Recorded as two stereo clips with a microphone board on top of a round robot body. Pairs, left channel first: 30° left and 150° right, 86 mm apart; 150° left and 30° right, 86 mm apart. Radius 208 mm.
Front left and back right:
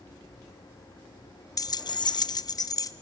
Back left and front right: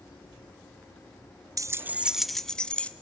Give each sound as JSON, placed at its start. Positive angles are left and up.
{"t": 1.6, "sound": "keys jangling", "azimuth_deg": 0, "distance_m": 0.5}